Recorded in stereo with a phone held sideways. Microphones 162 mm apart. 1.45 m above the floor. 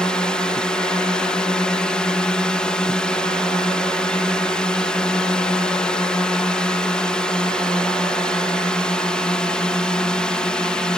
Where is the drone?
5° left (ahead or behind).